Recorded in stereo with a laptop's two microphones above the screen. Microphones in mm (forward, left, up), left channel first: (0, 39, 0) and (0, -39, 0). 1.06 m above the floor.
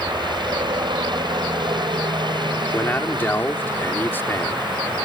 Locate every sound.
0.0 s a helicopter: 70° right (ahead or behind)
2.7 s a man speaking: 25° left (ahead or behind)